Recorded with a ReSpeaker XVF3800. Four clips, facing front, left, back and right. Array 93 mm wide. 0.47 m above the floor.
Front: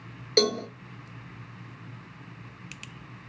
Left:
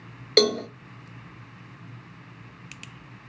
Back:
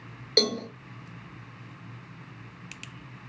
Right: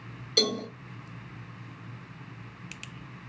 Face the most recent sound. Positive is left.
turn(degrees=85)